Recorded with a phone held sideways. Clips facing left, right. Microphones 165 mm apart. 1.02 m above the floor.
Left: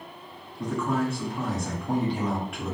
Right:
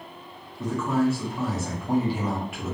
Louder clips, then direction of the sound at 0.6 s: Right 3 dB; 5° right (ahead or behind).